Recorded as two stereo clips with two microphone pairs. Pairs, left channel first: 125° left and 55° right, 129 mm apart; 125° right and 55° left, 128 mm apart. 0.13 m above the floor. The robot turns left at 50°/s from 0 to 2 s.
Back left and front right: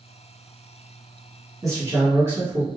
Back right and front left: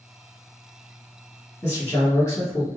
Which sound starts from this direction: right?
A man speaking, at 1.6 s.